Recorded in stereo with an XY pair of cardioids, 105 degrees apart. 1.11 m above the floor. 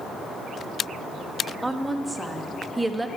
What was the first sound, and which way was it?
A woman speaking, 15° right.